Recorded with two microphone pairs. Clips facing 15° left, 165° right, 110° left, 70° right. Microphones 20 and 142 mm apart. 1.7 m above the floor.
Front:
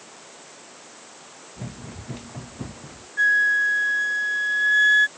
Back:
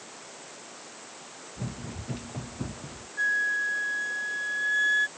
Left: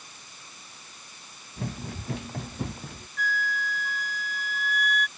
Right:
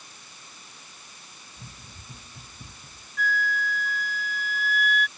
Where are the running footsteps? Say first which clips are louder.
Even, left 16 dB; 95° left; by 3.1 s 100° left.